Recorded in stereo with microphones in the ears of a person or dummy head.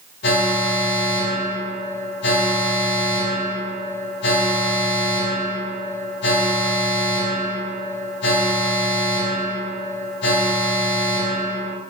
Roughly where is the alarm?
Left.